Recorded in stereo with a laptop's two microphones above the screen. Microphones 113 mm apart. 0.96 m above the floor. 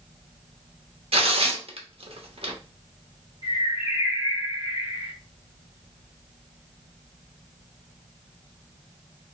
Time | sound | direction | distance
1.1 | tearing paper | 60° right (ahead or behind) | 1.1 m
3.4 | a bird | 55° left (ahead or behind) | 1.1 m